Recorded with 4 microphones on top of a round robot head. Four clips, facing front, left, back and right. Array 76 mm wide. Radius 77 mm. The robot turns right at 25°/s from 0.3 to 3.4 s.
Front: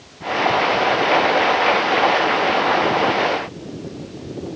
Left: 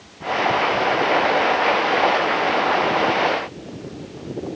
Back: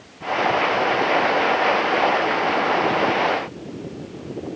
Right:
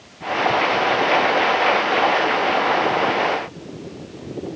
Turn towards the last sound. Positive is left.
No sound to turn to.